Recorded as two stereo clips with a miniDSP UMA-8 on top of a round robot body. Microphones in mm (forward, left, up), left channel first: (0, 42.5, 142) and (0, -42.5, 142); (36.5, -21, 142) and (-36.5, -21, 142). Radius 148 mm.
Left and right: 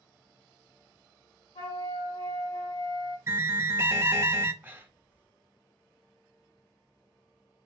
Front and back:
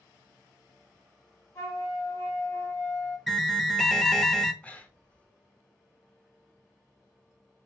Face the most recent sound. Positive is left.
turn(degrees=-55)